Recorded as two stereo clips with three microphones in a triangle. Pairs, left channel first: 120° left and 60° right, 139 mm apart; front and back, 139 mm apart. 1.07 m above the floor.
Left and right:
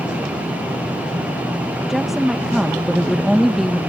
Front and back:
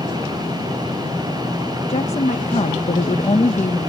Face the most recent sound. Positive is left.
turn(degrees=30)